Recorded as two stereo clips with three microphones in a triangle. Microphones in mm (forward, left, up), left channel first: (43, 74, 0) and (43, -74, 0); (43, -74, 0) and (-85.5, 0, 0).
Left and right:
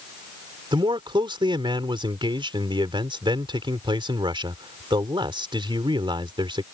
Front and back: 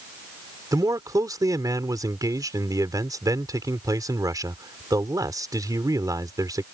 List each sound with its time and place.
0.7 s a man speaking: 145° right